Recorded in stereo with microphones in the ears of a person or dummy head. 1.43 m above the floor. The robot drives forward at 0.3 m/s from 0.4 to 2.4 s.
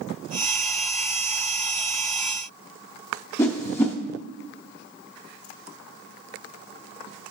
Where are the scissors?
I don't hear scissors.